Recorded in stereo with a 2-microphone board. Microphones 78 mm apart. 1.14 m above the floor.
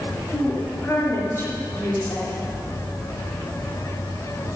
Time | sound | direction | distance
0.3 | a woman speaking | 40° left (ahead or behind) | 3.5 m